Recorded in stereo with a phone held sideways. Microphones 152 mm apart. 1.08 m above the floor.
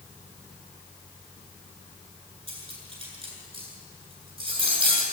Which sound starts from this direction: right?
Cutlery clinking, at 2.5 s.